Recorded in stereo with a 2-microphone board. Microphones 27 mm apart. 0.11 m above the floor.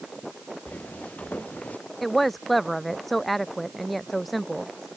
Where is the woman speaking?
Centre (ahead or behind).